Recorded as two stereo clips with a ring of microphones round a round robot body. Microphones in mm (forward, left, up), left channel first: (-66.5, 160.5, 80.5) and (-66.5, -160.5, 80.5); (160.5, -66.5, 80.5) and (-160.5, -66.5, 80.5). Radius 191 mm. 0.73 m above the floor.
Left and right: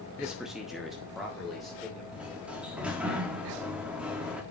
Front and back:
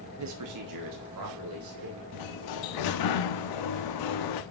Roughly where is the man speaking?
Behind.